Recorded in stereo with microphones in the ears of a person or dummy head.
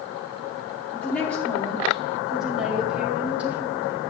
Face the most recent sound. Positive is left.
turn(degrees=-10)  # may be behind; listen again after turning